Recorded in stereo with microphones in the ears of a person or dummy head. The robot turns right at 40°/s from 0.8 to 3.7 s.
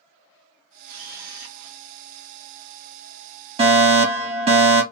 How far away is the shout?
No shout in this recording.